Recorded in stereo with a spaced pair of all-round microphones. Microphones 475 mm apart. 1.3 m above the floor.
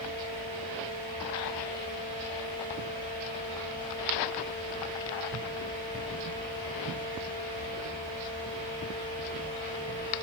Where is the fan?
70° right (ahead or behind), 4.5 m.